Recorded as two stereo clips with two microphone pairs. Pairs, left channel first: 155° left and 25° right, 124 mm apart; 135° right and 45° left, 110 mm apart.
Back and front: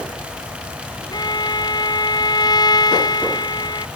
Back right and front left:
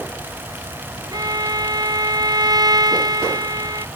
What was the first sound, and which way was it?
A violin, 100° left.